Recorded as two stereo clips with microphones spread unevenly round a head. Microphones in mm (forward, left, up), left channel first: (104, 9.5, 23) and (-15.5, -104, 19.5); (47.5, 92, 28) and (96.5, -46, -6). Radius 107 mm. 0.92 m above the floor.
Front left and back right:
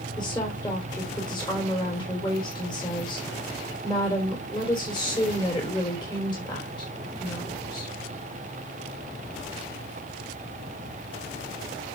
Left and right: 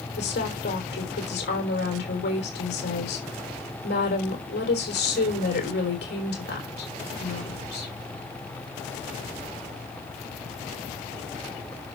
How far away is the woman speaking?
About 3.5 m.